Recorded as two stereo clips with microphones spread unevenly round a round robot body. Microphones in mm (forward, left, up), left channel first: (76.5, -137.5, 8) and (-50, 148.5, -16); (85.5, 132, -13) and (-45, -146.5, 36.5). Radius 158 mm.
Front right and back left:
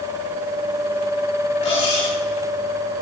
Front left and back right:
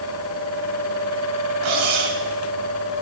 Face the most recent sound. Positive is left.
turn(degrees=-140)